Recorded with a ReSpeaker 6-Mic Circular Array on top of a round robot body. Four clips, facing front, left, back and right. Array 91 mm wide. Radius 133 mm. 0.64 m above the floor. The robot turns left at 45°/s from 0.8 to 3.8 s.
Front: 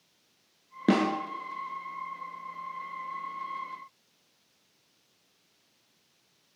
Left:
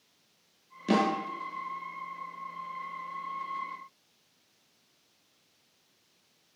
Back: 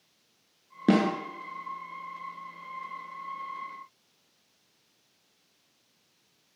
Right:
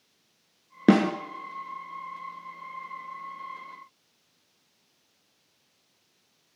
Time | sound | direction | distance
0.9 | a snare drum | 85° right | 2.5 m